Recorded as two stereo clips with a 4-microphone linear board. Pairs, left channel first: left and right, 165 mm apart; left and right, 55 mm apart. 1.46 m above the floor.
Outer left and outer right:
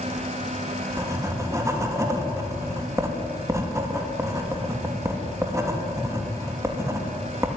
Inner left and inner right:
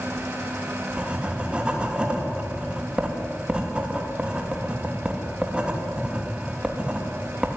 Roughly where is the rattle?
I don't hear a rattle.